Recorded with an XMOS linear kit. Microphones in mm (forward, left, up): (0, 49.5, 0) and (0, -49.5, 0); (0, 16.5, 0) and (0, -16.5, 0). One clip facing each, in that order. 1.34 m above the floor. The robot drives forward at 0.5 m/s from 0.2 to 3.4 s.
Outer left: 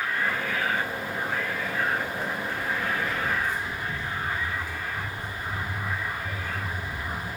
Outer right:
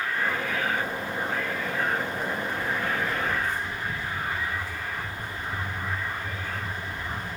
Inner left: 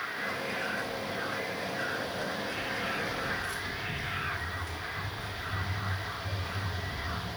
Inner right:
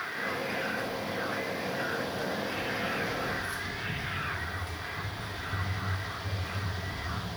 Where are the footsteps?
20° left (ahead or behind), 1.6 m; by 7.3 s 55° right (ahead or behind), 3.5 m.